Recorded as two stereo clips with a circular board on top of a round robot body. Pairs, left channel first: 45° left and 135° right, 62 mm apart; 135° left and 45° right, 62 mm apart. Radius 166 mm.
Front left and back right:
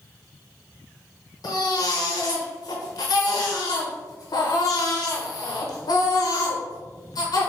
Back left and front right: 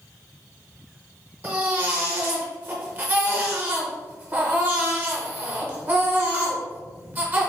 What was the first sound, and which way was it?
A baby crying, 20° left.